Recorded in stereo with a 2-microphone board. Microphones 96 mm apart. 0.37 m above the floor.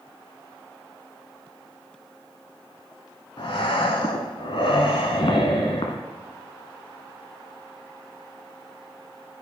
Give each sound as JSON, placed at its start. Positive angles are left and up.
{"t": 3.4, "sound": "breathing", "side_deg": 65, "distance_m": 1.0}